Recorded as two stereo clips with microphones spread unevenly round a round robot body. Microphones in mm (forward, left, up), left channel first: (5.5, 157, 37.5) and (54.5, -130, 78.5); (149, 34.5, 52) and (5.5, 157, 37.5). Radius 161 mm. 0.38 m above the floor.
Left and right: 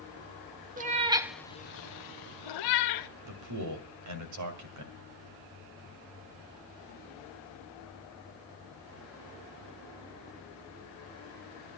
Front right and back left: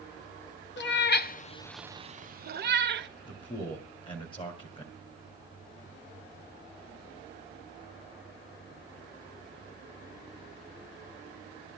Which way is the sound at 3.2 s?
110° right.